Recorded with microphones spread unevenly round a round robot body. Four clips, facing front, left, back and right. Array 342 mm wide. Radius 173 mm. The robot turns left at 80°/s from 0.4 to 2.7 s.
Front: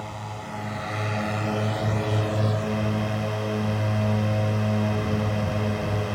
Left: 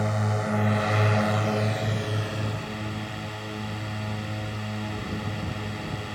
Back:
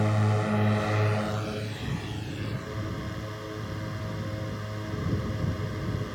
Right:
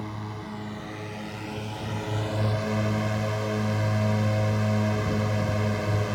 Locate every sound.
0.0 s a drone: 140° left; by 6.2 s 40° right